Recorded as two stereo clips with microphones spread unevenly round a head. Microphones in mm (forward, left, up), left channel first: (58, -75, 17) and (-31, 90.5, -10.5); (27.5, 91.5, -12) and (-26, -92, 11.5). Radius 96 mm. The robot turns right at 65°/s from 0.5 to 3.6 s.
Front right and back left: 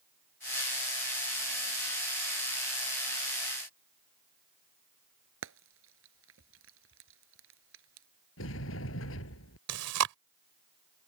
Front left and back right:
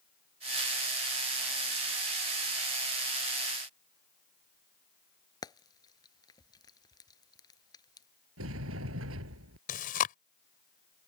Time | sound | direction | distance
5.4 | frying | 145° left | ?
8.4 | a sliding door | 85° right | ?
9.7 | chewing | 125° left | ?